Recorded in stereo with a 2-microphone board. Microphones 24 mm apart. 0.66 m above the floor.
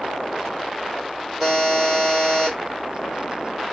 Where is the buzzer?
10° right (ahead or behind), 2 m.